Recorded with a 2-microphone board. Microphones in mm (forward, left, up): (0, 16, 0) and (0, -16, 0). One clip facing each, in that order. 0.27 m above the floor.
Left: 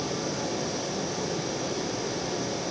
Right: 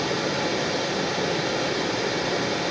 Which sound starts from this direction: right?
Running water, at 0.0 s.